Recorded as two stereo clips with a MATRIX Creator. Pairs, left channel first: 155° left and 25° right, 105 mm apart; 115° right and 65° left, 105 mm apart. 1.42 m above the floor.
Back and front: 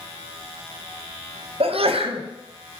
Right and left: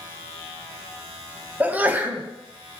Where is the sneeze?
5° right, 0.5 m.